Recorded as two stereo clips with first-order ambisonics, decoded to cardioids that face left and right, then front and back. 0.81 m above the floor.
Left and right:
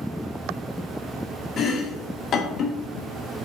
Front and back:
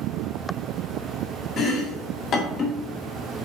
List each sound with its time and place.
1.6 s chopping: 40° left, 1.4 m